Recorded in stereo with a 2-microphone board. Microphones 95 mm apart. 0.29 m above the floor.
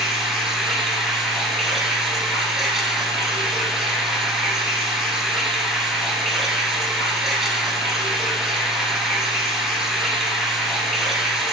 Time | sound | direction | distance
0.0 | running water | 5° right (ahead or behind) | 1.6 m